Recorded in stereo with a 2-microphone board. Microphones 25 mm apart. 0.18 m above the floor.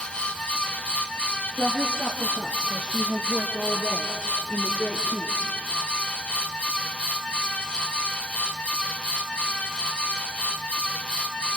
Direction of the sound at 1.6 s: Centre (ahead or behind).